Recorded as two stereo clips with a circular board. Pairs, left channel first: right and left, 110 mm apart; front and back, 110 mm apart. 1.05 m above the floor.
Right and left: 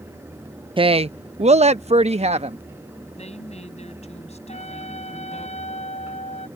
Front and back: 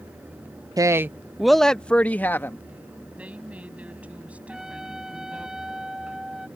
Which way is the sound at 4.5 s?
95° right.